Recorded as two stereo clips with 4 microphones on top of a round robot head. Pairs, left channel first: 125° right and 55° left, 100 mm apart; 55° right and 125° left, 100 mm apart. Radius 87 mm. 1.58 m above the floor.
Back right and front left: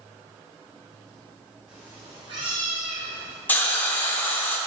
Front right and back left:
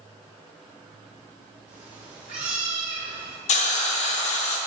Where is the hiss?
50° right, 0.6 m.